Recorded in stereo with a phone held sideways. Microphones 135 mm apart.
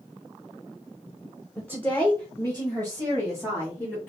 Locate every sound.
1.6 s a woman speaking: 10° left (ahead or behind), 0.7 m; by 4.1 s 15° left (ahead or behind), 2 m